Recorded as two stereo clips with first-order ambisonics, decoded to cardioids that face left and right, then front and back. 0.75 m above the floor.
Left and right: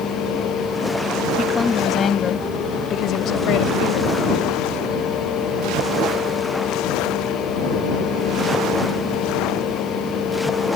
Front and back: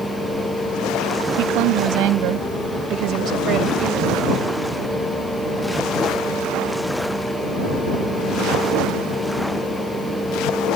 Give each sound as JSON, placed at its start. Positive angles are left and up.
{"t": 1.4, "sound": "a woman speaking", "azimuth_deg": 170}